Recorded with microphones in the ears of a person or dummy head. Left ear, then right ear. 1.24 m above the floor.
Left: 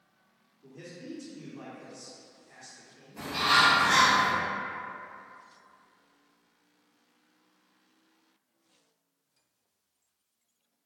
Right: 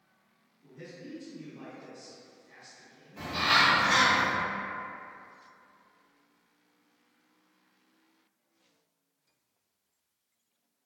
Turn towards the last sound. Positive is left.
turn(degrees=0)  # may be behind; listen again after turning